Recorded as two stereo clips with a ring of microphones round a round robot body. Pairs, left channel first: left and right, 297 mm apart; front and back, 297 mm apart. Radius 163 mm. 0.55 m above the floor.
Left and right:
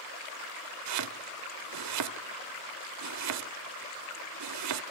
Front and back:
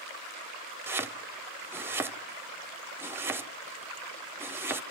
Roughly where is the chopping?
Right.